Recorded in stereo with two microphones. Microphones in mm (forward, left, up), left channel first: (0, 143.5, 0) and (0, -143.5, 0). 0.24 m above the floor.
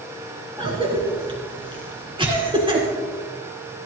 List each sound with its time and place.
0.6 s a cough: 15° right (ahead or behind), 3.5 m